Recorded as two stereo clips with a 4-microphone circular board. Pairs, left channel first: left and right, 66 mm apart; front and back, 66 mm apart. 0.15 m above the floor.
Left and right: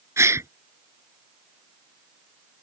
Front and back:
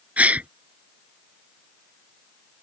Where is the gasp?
120° right.